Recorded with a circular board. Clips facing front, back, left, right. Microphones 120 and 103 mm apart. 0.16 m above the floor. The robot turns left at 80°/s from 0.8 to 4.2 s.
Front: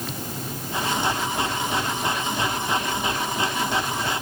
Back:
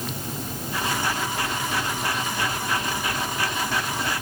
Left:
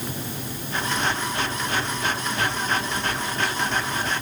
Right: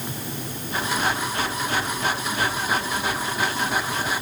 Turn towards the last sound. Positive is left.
No sound to turn to.